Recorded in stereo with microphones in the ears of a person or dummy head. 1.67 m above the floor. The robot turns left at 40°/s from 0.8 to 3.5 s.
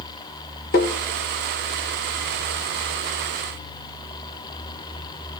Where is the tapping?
50° left (ahead or behind), 1.3 m; by 0.9 s 55° left (ahead or behind), 1.3 m.